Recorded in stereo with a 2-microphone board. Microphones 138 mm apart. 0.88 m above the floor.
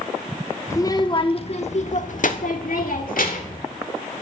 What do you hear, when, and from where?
0.7 s a child speaking: 20° left (ahead or behind), 1.4 m; by 3.6 s 80° left, 2.5 m